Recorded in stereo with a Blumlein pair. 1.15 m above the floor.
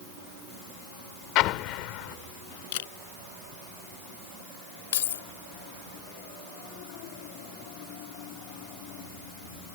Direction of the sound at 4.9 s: 60° left.